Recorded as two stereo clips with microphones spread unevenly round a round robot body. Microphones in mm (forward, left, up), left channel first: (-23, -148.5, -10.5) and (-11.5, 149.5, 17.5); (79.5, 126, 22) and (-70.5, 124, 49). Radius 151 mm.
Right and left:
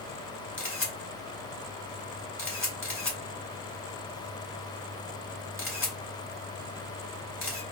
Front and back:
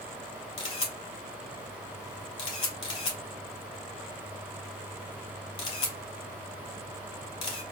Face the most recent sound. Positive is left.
turn(degrees=-15)